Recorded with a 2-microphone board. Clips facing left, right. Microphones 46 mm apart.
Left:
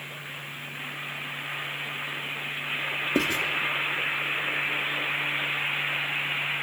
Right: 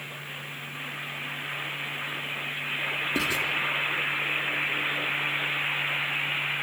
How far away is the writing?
About 3 m.